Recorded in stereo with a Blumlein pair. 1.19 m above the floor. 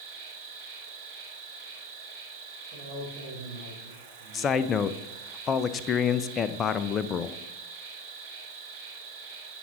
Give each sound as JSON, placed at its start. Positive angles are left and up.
{"t": 0.0, "sound": "an insect", "azimuth_deg": -40, "distance_m": 3.0}
{"t": 2.7, "sound": "a man speaking", "azimuth_deg": -35, "distance_m": 4.0}
{"t": 4.3, "sound": "a man speaking", "azimuth_deg": 25, "distance_m": 0.7}